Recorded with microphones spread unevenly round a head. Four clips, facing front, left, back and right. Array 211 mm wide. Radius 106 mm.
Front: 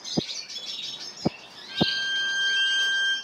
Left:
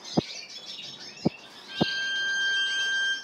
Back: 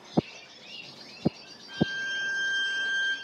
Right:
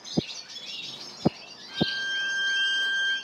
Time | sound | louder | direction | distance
1.7 | a violin | left 1 dB, front 2 dB | 120° left | 2.5 m